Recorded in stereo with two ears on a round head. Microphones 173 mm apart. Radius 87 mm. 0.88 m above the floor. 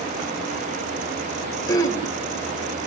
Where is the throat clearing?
20° left (ahead or behind), 2.5 m.